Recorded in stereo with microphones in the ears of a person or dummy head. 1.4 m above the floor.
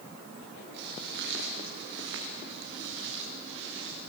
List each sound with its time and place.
0.7 s footsteps: 65° right (ahead or behind), 6 m